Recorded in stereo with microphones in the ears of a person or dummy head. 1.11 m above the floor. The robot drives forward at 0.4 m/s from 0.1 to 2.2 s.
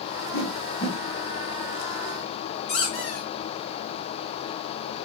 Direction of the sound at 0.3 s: 60° left (ahead or behind).